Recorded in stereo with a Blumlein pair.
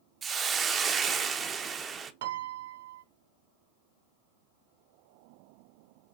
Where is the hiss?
20° right, 0.5 m.